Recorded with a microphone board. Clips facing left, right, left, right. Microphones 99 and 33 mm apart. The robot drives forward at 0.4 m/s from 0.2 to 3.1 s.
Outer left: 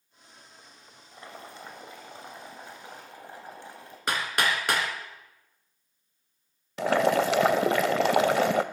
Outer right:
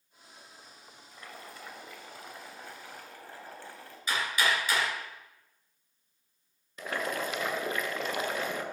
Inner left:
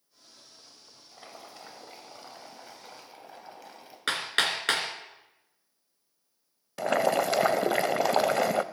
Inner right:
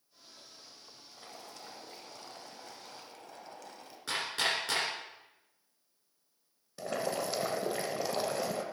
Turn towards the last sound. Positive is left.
turn(degrees=75)  # may be behind; listen again after turning